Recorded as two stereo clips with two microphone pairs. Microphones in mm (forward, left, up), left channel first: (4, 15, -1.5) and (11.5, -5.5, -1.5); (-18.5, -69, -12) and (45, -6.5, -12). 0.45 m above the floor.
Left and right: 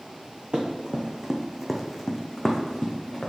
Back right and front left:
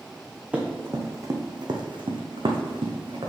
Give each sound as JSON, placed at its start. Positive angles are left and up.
{"t": 0.5, "sound": "running footsteps", "azimuth_deg": -30, "distance_m": 1.3}